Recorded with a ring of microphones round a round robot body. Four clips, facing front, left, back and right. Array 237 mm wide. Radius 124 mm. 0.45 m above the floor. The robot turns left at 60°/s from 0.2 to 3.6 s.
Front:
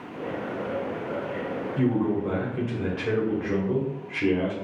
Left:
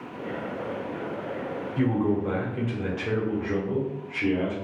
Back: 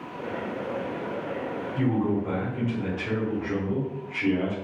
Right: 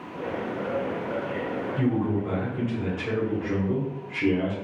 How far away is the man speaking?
About 1.2 m.